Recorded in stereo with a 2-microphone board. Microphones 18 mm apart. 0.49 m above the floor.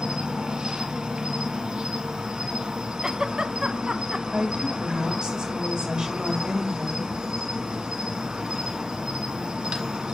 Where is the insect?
75° right (ahead or behind), 1.1 m.